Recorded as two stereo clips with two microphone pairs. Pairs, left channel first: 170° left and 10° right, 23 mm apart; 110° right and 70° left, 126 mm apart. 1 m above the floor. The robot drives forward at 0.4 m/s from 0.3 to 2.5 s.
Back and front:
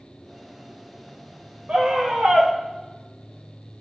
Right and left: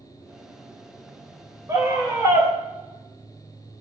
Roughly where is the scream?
Ahead.